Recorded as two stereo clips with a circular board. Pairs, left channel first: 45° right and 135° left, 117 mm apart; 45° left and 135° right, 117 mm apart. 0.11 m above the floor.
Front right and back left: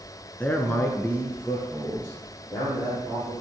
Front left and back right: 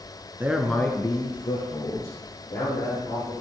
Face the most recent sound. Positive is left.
turn(degrees=35)